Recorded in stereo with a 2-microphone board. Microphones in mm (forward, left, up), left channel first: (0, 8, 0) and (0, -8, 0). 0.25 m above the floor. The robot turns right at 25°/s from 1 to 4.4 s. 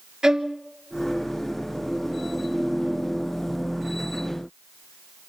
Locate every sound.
0.2 s a violin: 50° right (ahead or behind), 1.1 m